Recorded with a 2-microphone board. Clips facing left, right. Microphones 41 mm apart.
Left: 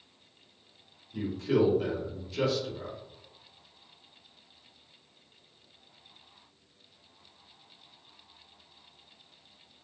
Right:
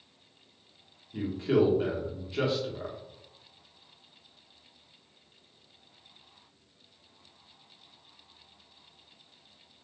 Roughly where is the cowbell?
I don't hear a cowbell.